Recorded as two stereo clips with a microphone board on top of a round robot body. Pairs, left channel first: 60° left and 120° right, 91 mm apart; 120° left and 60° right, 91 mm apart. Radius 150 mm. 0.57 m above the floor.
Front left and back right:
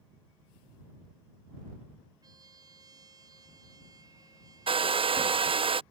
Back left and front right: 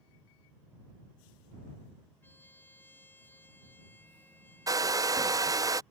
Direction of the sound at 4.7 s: 110° right.